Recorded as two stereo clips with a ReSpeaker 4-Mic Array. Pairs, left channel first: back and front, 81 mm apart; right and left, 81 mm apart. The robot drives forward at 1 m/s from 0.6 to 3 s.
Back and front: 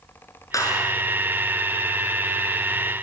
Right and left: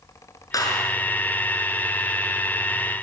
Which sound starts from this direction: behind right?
A clap, at 0.5 s.